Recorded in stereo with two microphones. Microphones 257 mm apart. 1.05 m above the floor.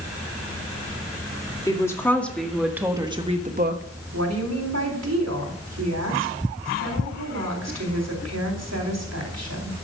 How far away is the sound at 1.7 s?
About 2 m.